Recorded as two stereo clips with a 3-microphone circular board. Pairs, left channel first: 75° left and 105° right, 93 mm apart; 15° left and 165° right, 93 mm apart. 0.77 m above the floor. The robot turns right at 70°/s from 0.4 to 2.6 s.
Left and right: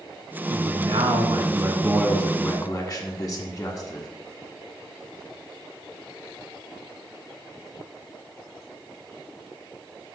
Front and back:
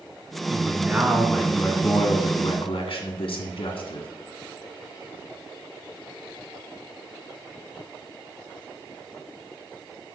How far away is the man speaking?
About 1.1 m.